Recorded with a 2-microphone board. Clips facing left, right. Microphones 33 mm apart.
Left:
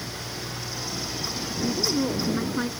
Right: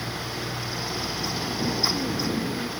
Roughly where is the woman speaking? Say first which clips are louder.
Left 2 dB; left.